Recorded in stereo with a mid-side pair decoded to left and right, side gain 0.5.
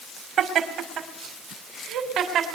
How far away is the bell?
I don't hear a bell.